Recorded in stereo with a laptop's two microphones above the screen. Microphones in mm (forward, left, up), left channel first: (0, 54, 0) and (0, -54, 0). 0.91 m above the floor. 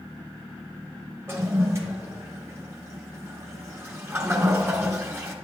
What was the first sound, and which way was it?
A toilet flushing, 25° right (ahead or behind).